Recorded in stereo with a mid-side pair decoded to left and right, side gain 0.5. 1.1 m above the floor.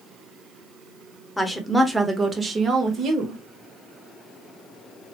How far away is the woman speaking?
About 1.0 m.